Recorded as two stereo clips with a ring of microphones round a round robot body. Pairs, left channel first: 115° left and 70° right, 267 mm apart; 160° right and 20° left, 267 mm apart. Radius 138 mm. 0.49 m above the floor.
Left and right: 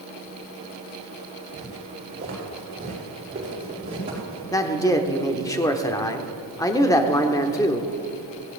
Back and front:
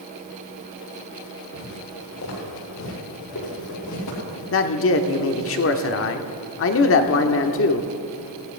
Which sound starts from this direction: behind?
A man speaking, at 4.5 s.